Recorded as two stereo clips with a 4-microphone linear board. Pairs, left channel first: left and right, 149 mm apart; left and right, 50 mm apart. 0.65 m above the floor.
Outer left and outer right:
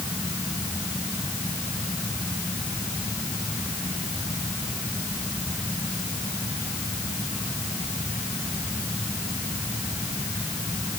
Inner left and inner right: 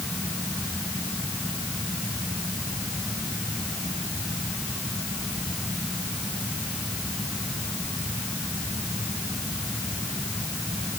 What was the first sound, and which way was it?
Only background noise.